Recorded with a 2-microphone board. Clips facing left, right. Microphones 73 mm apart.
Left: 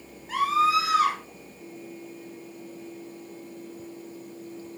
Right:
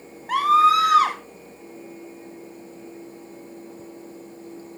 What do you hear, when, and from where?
0.3 s a scream: 70° right (ahead or behind), 3 m